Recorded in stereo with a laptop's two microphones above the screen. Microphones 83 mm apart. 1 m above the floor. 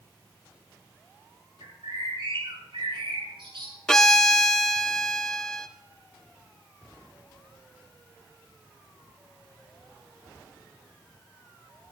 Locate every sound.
1.6 s a bird: 75° right (ahead or behind), 6 m
3.9 s a violin: 10° left (ahead or behind), 0.5 m